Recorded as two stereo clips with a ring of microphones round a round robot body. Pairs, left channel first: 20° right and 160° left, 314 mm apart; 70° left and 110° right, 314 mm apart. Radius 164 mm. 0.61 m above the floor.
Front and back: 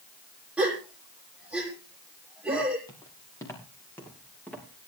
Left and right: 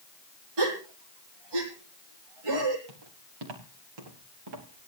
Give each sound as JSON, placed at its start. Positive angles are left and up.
{"t": 0.6, "sound": "a gasp", "azimuth_deg": -115, "distance_m": 6.5}
{"t": 2.9, "sound": "footsteps", "azimuth_deg": -100, "distance_m": 6.0}